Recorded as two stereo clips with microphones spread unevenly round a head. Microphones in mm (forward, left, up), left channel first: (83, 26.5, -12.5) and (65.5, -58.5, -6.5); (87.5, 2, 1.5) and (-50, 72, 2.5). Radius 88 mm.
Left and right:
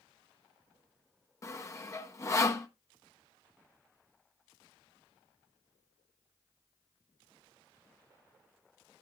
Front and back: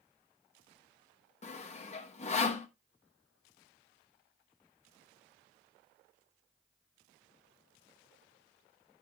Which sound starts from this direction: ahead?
Sawing, at 1.4 s.